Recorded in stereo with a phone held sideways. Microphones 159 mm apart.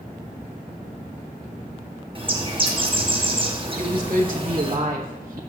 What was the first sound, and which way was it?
A bird, 35° right (ahead or behind).